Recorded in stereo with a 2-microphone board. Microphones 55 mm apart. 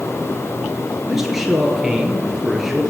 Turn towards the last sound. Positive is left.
turn(degrees=-5)  # may be behind; listen again after turning